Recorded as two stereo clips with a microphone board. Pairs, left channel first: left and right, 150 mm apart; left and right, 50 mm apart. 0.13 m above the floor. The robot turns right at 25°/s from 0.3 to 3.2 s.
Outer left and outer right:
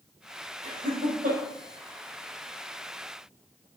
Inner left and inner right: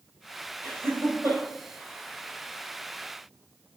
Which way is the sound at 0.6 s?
45° right (ahead or behind).